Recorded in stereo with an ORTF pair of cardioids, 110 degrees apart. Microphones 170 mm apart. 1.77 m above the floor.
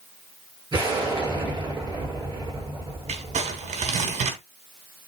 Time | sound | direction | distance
0.7 | an explosion | 25° right | 7.5 m
3.1 | crumpling | 40° right | 3 m